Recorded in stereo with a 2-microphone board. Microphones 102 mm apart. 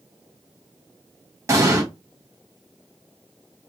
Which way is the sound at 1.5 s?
30° right (ahead or behind).